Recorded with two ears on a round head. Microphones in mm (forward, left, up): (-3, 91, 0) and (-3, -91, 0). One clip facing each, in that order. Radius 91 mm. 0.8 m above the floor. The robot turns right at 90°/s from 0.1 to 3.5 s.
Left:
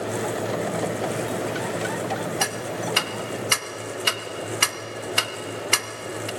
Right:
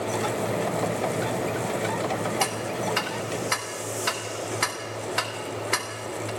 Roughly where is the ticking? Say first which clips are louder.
Even; centre.